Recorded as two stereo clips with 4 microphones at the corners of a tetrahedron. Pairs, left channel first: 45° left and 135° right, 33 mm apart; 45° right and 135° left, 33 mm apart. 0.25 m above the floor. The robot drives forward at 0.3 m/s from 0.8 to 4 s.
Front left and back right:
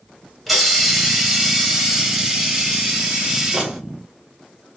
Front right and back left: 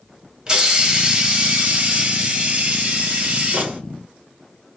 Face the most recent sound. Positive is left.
turn(degrees=170)